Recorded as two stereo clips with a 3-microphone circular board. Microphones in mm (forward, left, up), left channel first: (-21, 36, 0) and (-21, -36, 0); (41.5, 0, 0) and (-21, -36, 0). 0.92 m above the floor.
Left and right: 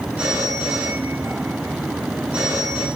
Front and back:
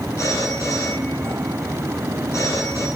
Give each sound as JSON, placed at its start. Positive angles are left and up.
{"t": 0.2, "sound": "a phone ringing", "azimuth_deg": -20, "distance_m": 7.5}